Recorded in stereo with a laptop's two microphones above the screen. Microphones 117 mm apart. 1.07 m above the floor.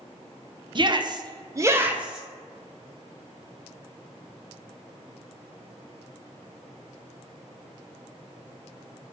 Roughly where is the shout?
Right.